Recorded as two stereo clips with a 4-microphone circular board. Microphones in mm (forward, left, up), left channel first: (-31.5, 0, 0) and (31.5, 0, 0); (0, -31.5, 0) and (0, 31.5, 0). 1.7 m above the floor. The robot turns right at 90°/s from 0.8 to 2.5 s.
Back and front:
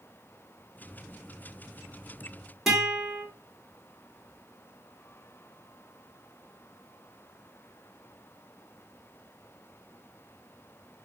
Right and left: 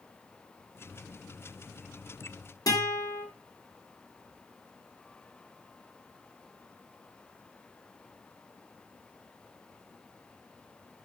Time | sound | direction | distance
2.7 | a guitar | 85° right | 3.5 m